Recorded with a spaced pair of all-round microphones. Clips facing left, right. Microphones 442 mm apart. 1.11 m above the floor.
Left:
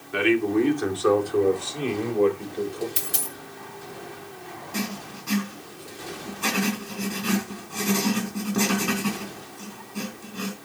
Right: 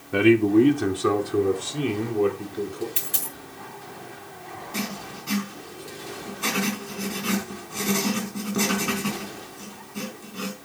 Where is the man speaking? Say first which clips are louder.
Right 5 dB; 55° right (ahead or behind), 2 m; by 2.9 s 20° right (ahead or behind), 4 m.